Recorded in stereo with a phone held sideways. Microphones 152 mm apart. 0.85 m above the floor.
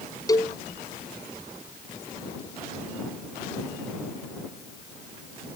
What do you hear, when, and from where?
0.3 s a cowbell: 20° left (ahead or behind)